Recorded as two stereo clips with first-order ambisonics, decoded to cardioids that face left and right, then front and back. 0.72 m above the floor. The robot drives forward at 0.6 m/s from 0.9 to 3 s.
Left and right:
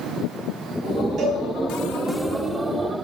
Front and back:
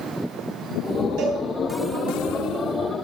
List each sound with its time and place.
1.2 s a cowbell: 145° right, 3 m